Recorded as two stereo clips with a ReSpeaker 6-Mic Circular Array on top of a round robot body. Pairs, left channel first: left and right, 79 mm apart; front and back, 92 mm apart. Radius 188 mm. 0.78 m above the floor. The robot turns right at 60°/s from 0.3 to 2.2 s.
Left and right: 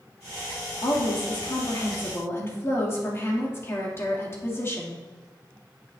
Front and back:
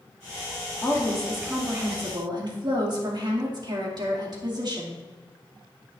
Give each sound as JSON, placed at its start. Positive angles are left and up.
{"t": 0.8, "sound": "a woman speaking", "azimuth_deg": 60, "distance_m": 2.5}